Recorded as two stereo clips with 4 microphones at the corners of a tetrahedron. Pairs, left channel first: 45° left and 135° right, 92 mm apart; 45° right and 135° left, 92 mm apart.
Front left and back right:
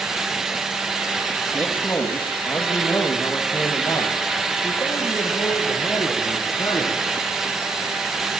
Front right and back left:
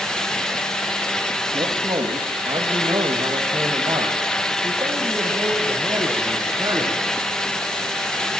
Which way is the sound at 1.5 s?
110° left.